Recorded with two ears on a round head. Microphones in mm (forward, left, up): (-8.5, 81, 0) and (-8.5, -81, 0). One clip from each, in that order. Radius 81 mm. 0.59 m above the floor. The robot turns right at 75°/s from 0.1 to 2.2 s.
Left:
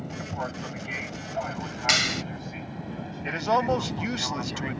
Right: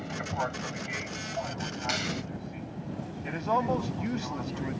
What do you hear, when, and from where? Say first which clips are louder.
0.0 s an aircraft: right 1 dB; 45° right (ahead or behind); by 4.8 s 50° left (ahead or behind)
1.9 s a clap: left 10 dB; 65° left (ahead or behind); by 2.2 s 40° left (ahead or behind)
3.2 s a man speaking: left 4 dB; 75° left (ahead or behind)